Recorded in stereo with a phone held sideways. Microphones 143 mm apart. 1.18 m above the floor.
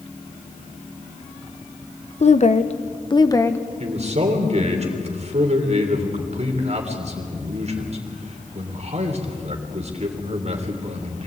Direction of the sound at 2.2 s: 50° left (ahead or behind).